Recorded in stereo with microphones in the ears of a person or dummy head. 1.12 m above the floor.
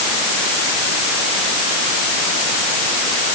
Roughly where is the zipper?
I don't hear a zipper.